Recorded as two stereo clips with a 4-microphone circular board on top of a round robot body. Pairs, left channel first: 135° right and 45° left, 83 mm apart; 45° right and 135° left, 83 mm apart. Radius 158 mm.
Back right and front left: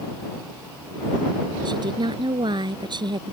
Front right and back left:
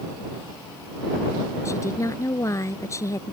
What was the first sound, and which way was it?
A woman speaking, 10° left.